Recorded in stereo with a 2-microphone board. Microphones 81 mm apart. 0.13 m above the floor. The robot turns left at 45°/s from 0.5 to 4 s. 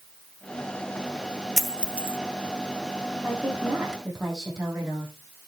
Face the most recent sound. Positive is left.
turn(degrees=180)